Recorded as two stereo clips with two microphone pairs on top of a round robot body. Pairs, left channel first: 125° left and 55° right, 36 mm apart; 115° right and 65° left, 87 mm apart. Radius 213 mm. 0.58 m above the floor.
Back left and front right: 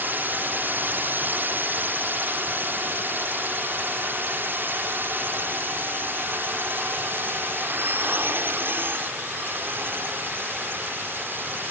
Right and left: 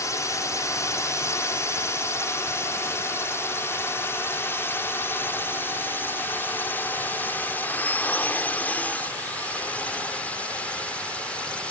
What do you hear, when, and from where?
0.0 s a drone: 75° right; by 11.7 s 40° right